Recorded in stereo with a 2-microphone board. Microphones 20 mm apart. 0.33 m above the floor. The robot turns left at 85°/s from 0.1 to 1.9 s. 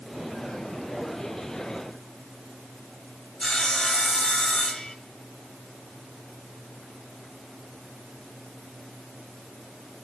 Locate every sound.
3.4 s sawing: 50° left (ahead or behind), 2 m